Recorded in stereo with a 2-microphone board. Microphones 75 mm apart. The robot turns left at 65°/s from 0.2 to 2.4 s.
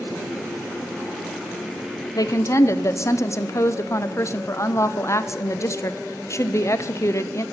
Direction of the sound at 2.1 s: 55° left (ahead or behind).